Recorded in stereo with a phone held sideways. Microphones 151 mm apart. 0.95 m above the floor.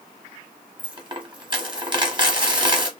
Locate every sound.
0.8 s a dropped coin: 30° right (ahead or behind), 1.2 m